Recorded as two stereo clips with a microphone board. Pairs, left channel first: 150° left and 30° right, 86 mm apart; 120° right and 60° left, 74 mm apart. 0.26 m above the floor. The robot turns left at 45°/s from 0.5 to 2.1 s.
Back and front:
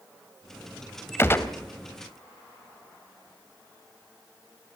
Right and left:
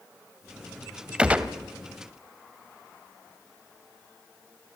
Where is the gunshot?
125° left, 1.3 m; by 1.5 s 110° left, 1.3 m.